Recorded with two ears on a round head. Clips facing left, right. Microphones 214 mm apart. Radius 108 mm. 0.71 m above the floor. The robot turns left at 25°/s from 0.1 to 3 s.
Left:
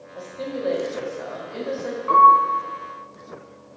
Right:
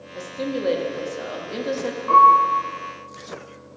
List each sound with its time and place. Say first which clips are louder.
0.1 s a woman speaking: right 3 dB; 45° right, 1.0 m; by 2.0 s 95° right, 1.0 m
2.1 s a piano: even; 30° left (ahead or behind), 3 m; by 2.4 s 40° left (ahead or behind), 3 m